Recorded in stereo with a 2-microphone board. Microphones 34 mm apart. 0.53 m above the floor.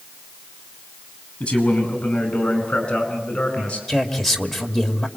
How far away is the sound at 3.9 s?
About 2.5 m.